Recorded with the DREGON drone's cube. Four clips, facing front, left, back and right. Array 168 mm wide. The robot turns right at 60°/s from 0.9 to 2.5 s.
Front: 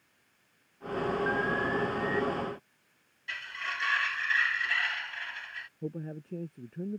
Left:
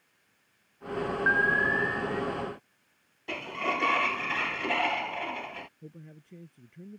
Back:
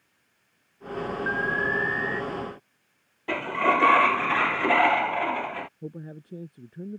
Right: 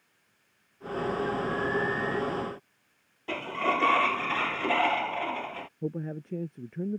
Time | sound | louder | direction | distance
1.3 | an alarm | left 3 dB, back 3 dB | 115° left | ?
3.3 | a sliding door | right 3 dB, back 16 dB | 175° right | ?
5.8 | a man speaking | right 15 dB, front 1 dB | 80° right | ?